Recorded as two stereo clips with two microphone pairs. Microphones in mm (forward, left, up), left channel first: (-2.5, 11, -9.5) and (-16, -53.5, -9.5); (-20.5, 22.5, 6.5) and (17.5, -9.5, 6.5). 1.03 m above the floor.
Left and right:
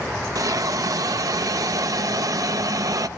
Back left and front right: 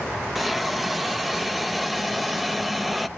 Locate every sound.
0.3 s a hiss: 130° right, 0.6 m